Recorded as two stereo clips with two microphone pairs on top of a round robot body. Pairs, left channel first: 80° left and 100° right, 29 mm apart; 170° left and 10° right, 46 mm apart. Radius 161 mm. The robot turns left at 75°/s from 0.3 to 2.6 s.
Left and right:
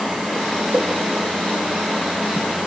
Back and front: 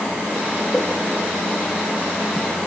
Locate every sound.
0.7 s a whoosh: 100° right, 5 m; by 0.9 s 115° right, 5 m